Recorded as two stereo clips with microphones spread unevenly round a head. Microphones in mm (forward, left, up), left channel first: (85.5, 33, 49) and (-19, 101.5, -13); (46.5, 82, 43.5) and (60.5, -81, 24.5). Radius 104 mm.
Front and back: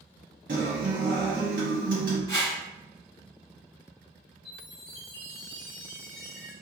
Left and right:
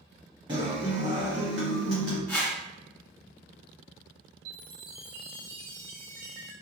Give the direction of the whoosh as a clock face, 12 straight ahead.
11 o'clock.